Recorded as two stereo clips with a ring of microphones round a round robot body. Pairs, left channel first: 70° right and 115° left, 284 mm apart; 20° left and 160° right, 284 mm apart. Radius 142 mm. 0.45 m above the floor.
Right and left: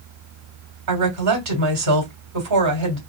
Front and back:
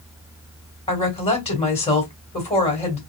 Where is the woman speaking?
90° left, 2.5 m.